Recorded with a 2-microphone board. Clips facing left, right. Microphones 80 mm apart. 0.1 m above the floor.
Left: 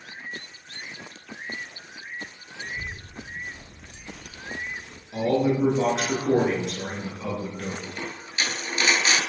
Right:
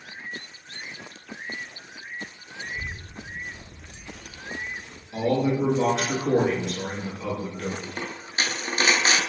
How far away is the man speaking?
About 1.1 m.